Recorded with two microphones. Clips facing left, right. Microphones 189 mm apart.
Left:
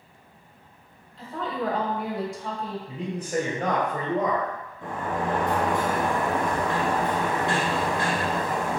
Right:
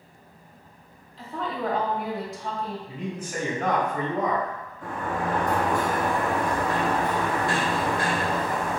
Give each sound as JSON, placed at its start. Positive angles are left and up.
{"t": 1.2, "sound": "a woman speaking", "side_deg": 0, "distance_m": 1.3}
{"t": 2.9, "sound": "a man speaking", "side_deg": 35, "distance_m": 1.6}
{"t": 4.8, "sound": "a sliding door", "side_deg": 25, "distance_m": 1.4}